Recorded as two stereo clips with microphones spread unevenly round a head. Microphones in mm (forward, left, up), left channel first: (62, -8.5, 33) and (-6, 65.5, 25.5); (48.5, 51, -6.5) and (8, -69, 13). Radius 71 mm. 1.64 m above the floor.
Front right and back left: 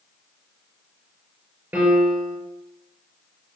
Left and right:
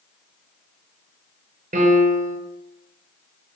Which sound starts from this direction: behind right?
A piano, at 1.7 s.